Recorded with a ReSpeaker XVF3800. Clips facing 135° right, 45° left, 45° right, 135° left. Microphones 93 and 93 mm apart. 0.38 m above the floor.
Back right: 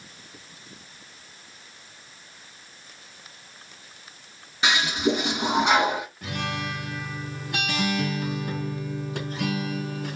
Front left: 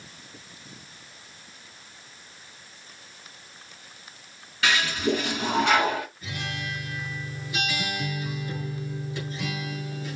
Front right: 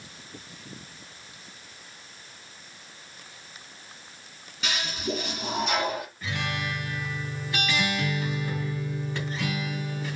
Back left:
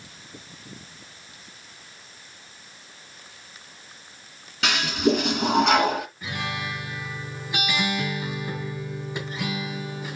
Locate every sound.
4.6 s a toilet flushing: 155° left, 1.9 m
6.2 s a guitar: 150° right, 3 m